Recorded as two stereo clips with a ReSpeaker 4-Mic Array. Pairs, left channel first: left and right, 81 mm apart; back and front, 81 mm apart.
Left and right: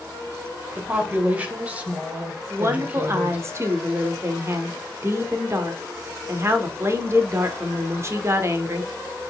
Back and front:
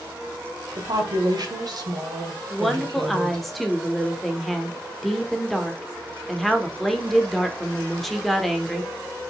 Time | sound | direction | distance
0.8 | a woman speaking | 20° right | 1.5 m
2.5 | a woman speaking | 90° right | 1.0 m